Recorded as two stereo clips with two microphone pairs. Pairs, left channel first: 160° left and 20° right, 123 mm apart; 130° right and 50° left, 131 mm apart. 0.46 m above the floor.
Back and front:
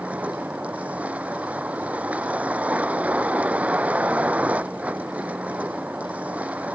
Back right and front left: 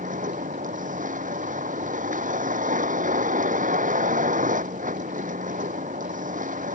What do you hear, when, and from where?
0.0 s a vehicle: 55° left